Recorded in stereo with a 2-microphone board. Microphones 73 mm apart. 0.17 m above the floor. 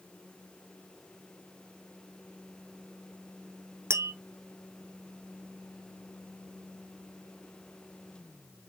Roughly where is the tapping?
Right.